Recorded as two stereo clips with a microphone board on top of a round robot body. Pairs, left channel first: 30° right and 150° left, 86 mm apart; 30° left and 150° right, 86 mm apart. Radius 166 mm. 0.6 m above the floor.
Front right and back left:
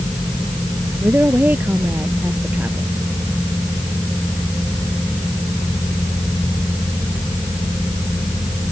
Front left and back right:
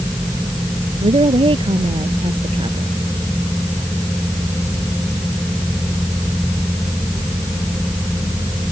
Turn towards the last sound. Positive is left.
turn(degrees=-140)